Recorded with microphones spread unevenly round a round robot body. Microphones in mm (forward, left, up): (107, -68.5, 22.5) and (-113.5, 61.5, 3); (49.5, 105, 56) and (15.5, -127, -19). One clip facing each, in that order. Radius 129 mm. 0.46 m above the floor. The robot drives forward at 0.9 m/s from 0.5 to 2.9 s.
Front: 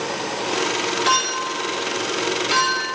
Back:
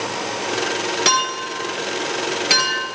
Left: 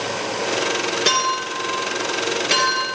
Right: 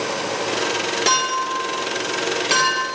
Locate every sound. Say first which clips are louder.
1.1 s a clink: back 1 dB, left 1 dB; 170° left, 4.5 m; by 2.9 s 175° left, 6 m